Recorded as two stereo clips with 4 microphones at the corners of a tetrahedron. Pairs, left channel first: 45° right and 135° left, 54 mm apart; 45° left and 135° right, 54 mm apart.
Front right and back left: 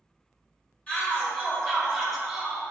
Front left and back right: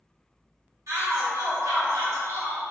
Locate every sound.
0.9 s a shout: 115° right, 1.6 m; by 2.6 s 155° right, 1.0 m